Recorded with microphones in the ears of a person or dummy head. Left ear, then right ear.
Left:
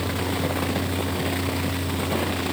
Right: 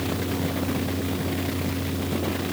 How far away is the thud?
No thud in this recording.